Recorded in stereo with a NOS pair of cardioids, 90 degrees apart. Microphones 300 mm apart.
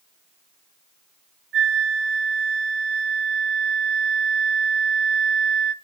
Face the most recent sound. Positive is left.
turn(degrees=-45)